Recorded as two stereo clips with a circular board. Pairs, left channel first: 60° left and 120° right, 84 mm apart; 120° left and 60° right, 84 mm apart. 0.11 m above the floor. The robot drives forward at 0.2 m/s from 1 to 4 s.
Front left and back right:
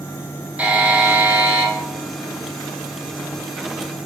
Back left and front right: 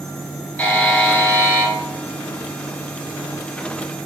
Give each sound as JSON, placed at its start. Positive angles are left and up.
{"t": 0.6, "sound": "a buzzer", "azimuth_deg": 175, "distance_m": 1.5}